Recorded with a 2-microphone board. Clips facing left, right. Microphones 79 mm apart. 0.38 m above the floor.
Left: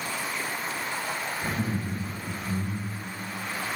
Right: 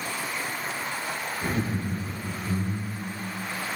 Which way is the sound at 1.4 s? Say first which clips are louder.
Right 3 dB; 75° right (ahead or behind).